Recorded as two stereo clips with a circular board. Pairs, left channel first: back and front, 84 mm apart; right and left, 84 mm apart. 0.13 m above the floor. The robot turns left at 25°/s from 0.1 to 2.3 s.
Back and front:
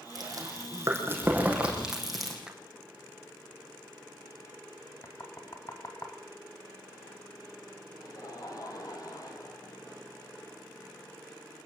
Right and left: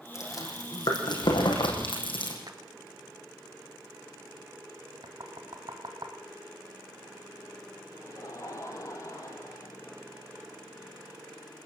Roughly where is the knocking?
Behind left.